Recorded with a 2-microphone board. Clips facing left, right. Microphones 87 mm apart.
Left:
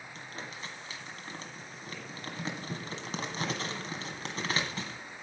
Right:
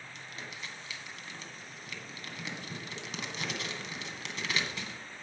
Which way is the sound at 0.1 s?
40° left (ahead or behind).